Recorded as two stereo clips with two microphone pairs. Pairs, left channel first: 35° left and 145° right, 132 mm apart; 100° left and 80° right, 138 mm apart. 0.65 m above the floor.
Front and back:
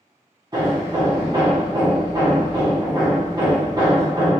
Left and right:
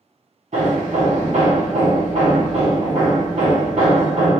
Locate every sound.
0.5 s hammering: 95° right, 1.7 m